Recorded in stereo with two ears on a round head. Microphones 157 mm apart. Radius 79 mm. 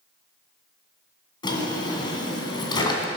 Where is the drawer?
25° left (ahead or behind), 2 m.